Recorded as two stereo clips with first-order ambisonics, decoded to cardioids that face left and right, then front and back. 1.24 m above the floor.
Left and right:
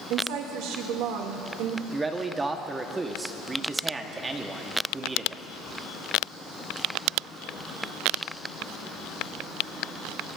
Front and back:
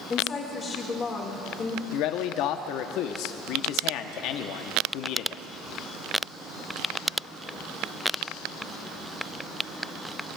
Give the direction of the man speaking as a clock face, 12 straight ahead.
12 o'clock.